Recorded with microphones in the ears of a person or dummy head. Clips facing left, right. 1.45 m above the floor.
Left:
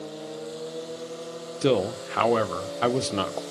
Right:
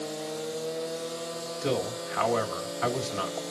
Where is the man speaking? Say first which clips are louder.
Left 7 dB; 45° left (ahead or behind), 0.7 m.